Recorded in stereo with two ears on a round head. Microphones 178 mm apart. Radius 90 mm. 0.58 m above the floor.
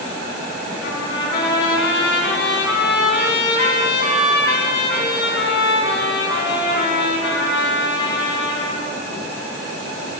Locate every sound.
0.8 s a trumpet: 60° left (ahead or behind), 3.5 m